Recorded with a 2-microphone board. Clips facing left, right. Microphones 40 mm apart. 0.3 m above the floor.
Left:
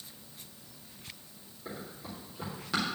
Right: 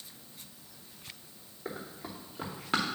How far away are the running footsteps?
About 3 m.